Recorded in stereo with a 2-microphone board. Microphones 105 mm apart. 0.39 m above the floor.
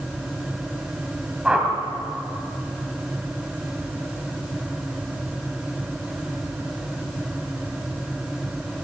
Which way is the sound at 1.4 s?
10° right (ahead or behind).